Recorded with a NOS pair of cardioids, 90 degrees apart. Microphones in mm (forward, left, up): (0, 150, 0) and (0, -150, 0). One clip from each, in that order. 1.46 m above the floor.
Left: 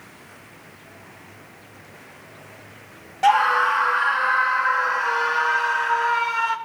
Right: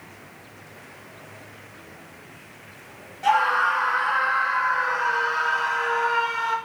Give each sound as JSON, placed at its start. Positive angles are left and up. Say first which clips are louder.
{"t": 3.2, "sound": "a scream", "louder": "left 3 dB", "azimuth_deg": 65, "distance_m": 1.5}